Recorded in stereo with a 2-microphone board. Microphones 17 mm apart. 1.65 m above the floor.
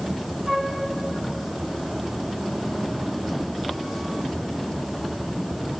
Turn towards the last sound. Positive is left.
turn(degrees=-40)  # may be behind; listen again after turning